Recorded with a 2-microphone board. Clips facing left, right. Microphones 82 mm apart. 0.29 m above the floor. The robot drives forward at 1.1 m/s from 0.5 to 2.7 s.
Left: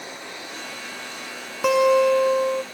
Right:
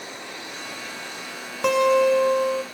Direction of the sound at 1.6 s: 5° left (ahead or behind).